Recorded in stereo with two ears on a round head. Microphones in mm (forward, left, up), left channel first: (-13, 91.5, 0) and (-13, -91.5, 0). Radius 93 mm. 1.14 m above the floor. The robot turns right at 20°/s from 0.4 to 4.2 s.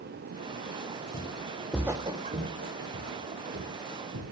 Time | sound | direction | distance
1.1 | footsteps | 30° left (ahead or behind) | 1.7 m